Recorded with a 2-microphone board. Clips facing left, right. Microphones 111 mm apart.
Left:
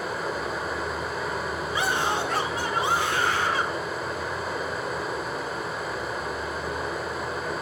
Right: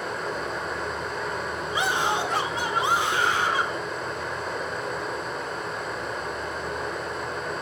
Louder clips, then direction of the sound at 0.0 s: Left 1 dB; 5° left (ahead or behind).